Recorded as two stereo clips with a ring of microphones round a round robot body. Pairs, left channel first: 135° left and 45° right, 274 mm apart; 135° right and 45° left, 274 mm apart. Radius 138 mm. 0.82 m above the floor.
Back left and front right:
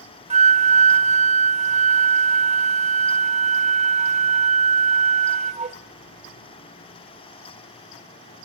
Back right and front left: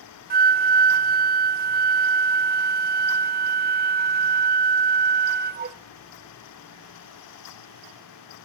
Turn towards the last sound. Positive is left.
turn(degrees=10)